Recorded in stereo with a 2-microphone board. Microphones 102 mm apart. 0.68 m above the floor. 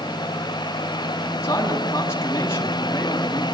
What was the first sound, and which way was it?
A man speaking, 25° left (ahead or behind).